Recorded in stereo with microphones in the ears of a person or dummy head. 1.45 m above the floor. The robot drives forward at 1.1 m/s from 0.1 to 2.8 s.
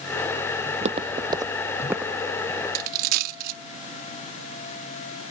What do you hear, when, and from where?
0.7 s footsteps: 45° right (ahead or behind); by 2.6 s 5° right (ahead or behind)
2.8 s a dropped coin: 50° right (ahead or behind)